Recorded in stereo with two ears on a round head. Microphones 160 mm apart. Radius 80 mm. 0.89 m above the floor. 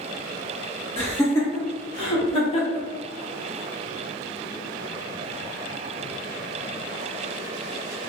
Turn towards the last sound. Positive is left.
turn(degrees=40)  # may be behind; listen again after turning